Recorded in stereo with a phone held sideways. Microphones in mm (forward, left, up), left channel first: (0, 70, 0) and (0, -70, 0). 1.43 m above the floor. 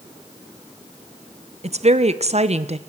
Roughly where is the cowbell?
I don't hear a cowbell.